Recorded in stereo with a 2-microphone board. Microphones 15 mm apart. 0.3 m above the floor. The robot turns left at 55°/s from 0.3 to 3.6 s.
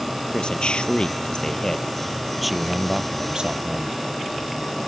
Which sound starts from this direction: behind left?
A man speaking, at 0.3 s.